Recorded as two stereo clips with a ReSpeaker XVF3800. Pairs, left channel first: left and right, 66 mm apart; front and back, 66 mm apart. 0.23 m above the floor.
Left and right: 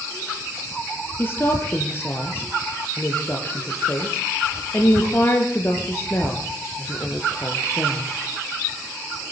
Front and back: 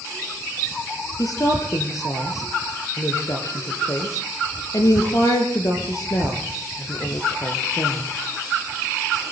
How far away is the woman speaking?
About 4 m.